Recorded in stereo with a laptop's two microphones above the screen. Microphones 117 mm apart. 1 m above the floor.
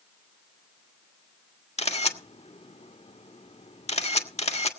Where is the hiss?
I don't hear a hiss.